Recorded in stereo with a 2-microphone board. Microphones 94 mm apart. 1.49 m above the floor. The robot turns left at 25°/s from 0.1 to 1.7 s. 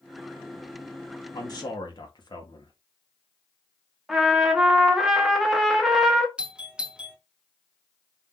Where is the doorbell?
10° right (ahead or behind), 0.8 m.